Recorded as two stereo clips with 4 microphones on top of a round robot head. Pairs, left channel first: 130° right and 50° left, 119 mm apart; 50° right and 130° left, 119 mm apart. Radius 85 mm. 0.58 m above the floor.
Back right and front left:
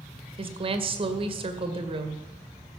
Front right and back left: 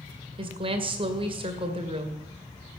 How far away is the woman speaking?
About 2 m.